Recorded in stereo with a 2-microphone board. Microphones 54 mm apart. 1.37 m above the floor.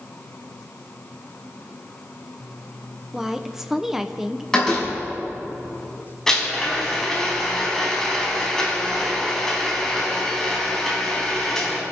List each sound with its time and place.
3.1 s a woman speaking: 10° right (ahead or behind), 0.9 m
4.5 s a door slam: 10° left (ahead or behind), 6.5 m
6.3 s a blender: 5° left (ahead or behind), 4.5 m